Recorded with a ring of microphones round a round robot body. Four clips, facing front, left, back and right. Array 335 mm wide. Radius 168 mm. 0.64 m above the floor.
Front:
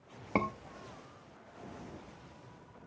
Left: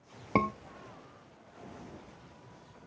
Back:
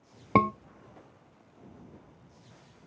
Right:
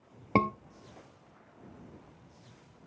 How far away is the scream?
About 0.6 m.